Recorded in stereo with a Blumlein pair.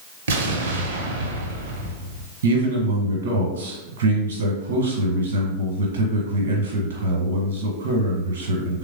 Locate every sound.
0.3 s an explosion: 60° right, 0.7 m
2.4 s a man speaking: 65° right, 1.1 m